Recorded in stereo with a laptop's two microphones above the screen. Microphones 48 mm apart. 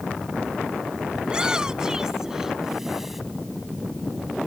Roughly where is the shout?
Centre.